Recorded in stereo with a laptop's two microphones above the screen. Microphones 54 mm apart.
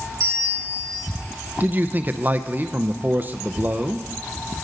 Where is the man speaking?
30° right (ahead or behind), 0.5 m.